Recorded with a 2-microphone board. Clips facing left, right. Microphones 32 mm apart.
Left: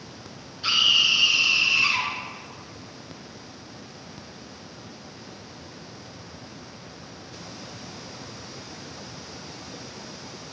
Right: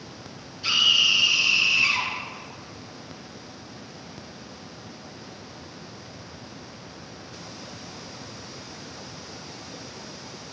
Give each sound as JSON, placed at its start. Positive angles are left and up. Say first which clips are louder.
{"t": 0.6, "sound": "a scream", "louder": "even", "side_deg": 30, "distance_m": 2.5}